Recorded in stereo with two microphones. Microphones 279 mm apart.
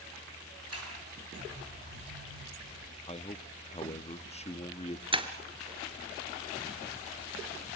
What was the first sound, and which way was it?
A sliding door, 60° right (ahead or behind).